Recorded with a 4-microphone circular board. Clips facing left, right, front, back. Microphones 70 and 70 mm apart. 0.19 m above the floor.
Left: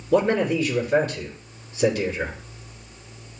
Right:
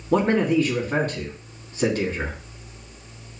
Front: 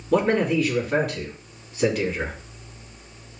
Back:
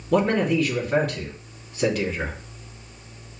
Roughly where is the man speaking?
Right.